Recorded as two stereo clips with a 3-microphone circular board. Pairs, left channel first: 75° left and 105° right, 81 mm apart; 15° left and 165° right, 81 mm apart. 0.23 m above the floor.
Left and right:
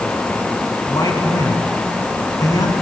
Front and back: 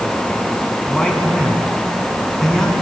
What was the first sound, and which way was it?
A man speaking, 95° left.